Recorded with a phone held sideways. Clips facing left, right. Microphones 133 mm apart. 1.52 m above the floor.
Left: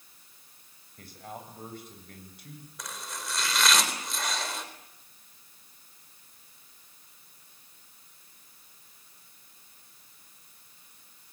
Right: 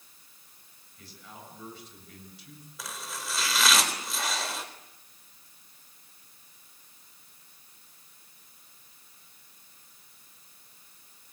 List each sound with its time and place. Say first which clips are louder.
1.0 s a man speaking: left 6 dB; 55° left (ahead or behind), 8 m
2.8 s chopping: right 1 dB; centre (ahead or behind), 4 m